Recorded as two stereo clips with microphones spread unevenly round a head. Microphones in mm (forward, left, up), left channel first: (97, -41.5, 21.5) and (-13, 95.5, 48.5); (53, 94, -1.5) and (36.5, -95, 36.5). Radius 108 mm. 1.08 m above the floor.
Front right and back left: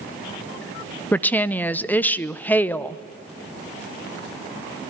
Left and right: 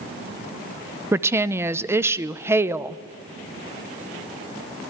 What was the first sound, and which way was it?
A woman speaking, 10° right.